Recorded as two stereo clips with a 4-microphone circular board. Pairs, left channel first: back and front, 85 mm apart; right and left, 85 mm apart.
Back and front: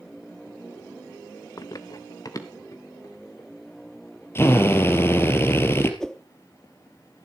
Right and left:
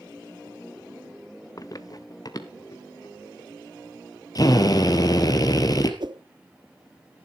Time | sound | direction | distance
1.6 | running footsteps | 135° right | 0.7 m
4.3 | a drill | 125° right | 1.9 m
6.0 | a whoosh | 95° left | 0.7 m